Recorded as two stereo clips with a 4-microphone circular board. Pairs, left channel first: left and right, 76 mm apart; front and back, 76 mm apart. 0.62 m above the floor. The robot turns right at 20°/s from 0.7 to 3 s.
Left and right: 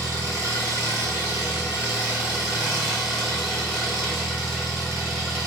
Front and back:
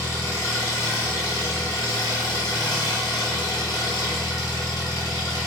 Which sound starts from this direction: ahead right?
An engine running, at 0.0 s.